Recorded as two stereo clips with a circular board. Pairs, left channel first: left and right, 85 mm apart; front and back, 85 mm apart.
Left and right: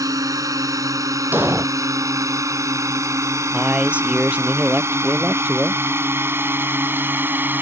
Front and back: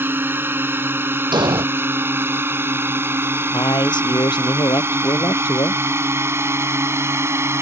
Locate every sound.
0.0 s a drone: 120° right; by 7.6 s 140° right
1.3 s an explosion: 155° right
3.5 s a man speaking: 15° right